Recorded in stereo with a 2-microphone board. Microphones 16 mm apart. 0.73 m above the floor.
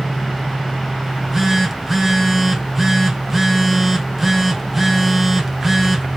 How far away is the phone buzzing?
About 1.0 m.